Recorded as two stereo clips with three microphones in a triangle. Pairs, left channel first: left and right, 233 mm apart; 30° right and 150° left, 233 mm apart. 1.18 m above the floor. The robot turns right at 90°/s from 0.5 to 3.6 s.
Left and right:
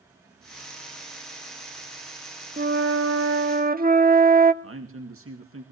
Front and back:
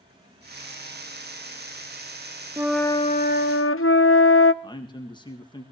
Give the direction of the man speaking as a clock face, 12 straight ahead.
3 o'clock.